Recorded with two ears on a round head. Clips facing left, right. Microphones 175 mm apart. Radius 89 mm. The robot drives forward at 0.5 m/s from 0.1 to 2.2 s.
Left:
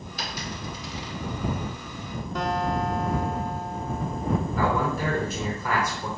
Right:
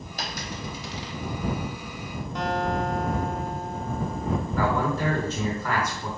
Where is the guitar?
75° left (ahead or behind), 1.1 m.